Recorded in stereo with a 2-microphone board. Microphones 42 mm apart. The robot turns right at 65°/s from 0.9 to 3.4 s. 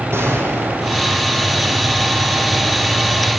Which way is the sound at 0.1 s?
75° right (ahead or behind).